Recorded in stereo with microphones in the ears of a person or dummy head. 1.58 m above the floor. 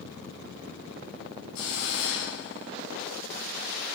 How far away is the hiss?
About 3.5 m.